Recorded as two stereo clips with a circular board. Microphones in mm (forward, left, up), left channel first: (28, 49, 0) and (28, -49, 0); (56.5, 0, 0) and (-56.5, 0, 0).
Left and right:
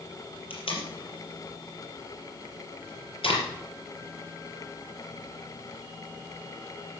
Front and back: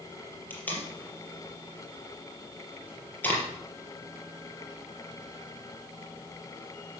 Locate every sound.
0.5 s tape being pulled: 75° left, 4 m